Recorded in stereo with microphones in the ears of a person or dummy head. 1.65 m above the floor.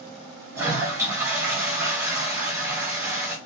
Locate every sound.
0.6 s a toilet flushing: 15° right (ahead or behind), 3.5 m